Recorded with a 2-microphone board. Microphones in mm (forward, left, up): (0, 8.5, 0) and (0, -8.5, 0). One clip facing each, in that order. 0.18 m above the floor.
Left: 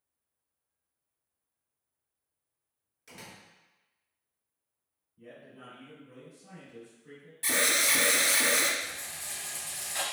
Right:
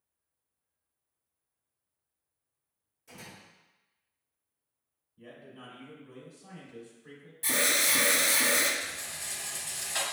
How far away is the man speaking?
About 1.9 m.